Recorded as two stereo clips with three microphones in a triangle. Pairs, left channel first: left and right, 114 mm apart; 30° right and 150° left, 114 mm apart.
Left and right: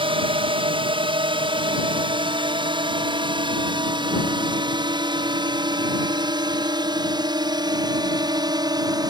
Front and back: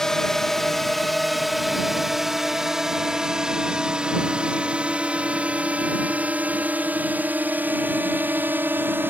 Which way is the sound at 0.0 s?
115° right.